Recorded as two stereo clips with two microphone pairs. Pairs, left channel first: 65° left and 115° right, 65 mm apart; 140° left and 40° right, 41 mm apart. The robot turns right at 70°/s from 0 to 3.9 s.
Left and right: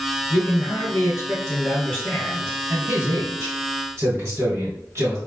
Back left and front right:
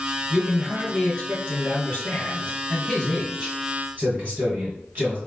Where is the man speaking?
25° left, 1.7 m; by 5.2 s 85° right, 1.7 m.